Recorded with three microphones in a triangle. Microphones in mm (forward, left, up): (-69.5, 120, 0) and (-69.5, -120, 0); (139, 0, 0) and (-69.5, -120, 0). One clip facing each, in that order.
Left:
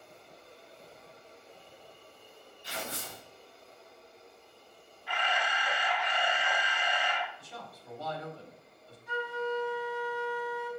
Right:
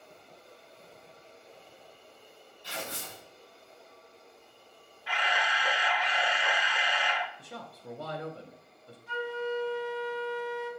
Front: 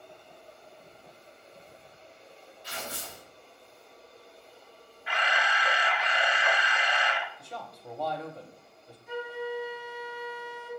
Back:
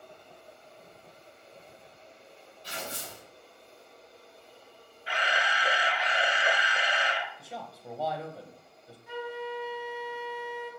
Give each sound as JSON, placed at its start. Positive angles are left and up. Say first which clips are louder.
{"t": 2.6, "sound": "tearing paper", "louder": "even, back 1 dB", "azimuth_deg": 160, "distance_m": 3.5}
{"t": 5.1, "sound": "a camera shutter", "louder": "even, even", "azimuth_deg": -90, "distance_m": 0.8}
{"t": 7.4, "sound": "a man speaking", "louder": "right 3 dB, even", "azimuth_deg": -65, "distance_m": 0.8}
{"t": 9.1, "sound": "a flute", "louder": "right 1 dB, front 2 dB", "azimuth_deg": -145, "distance_m": 3.5}